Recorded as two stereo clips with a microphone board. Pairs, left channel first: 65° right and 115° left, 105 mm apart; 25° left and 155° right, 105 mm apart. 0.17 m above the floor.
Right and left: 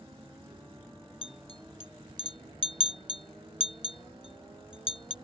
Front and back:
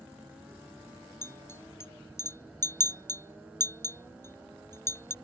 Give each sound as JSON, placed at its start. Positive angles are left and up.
{"t": 1.2, "sound": "a clink", "azimuth_deg": -40}